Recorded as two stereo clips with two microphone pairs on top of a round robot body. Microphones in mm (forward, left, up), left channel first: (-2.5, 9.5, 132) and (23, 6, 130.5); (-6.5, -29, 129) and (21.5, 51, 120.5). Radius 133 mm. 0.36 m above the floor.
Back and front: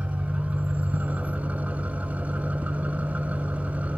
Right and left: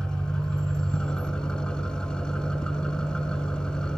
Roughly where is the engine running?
Ahead right.